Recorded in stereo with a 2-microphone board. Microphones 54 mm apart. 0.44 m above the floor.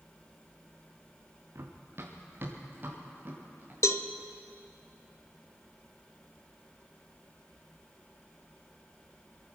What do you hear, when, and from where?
1.6 s running footsteps: 55° right (ahead or behind), 2.5 m; by 3.7 s 30° right (ahead or behind), 4.5 m
3.8 s a cowbell: 60° left (ahead or behind), 0.6 m